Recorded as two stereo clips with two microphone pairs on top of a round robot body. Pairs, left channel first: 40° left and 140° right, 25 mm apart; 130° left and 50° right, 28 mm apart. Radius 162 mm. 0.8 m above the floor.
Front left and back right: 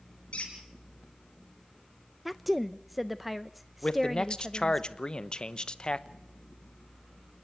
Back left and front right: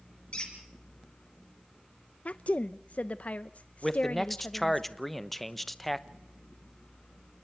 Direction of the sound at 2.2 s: 130° left.